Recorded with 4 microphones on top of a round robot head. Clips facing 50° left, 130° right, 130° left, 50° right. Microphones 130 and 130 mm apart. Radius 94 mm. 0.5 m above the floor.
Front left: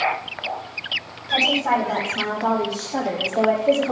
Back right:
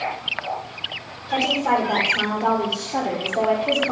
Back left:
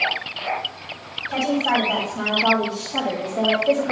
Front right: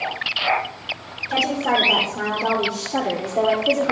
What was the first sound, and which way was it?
A woman speaking, 75° right.